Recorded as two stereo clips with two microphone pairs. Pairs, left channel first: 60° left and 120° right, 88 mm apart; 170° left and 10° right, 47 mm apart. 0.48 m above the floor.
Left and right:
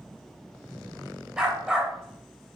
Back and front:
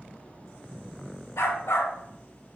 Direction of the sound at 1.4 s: 160° left.